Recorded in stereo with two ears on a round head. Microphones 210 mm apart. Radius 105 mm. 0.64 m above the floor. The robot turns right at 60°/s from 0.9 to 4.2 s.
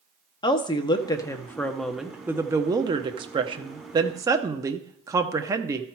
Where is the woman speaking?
20° left (ahead or behind), 0.6 m; by 5.8 s 15° right (ahead or behind), 0.6 m.